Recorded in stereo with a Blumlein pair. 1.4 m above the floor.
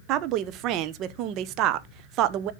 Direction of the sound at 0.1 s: 35° right.